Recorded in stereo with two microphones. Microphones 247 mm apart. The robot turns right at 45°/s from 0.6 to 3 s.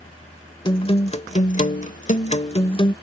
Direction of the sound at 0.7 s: 40° left.